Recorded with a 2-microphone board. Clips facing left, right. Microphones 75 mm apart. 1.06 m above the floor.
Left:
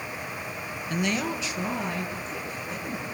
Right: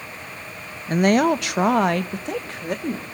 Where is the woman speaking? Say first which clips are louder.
Right 11 dB; 40° right (ahead or behind), 0.8 m; by 3.0 s 75° right (ahead or behind), 3 m.